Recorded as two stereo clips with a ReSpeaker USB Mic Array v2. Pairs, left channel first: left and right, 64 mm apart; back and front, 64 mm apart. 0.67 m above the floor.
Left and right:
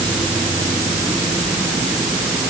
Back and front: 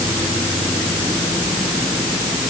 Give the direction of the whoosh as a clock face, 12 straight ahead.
I don't hear a whoosh.